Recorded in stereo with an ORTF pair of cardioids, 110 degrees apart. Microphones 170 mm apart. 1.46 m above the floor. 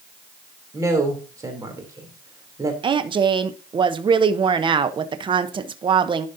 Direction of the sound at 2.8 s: 30° right.